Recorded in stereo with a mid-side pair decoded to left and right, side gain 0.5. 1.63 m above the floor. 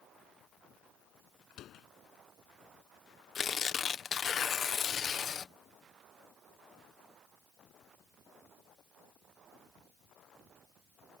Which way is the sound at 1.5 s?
65° left.